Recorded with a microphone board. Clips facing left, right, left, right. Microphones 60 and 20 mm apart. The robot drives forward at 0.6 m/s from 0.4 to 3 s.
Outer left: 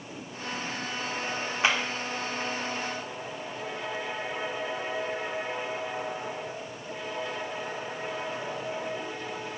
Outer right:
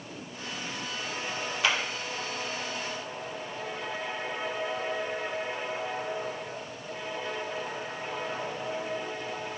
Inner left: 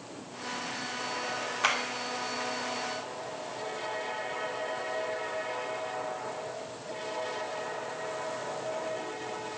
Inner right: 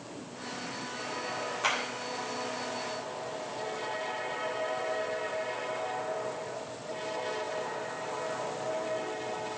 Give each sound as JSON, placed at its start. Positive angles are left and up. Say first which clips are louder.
{"t": 1.6, "sound": "a clap", "louder": "outer left 2 dB, inner left 2 dB", "side_deg": 25, "distance_m": 2.0}